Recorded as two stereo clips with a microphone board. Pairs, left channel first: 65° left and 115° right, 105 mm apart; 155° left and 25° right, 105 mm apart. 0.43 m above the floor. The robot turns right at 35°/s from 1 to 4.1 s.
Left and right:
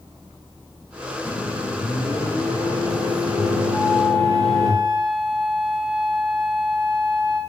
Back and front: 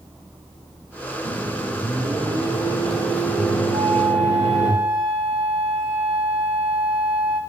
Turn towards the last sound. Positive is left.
turn(degrees=-15)